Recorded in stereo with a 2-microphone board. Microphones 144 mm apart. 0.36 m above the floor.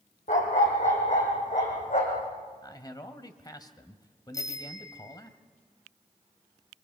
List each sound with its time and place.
0.3 s a dog barking: 60° left (ahead or behind), 4.5 m
2.6 s a man speaking: 30° left (ahead or behind), 1.6 m
4.3 s a bicycle bell: 25° left (ahead or behind), 2.5 m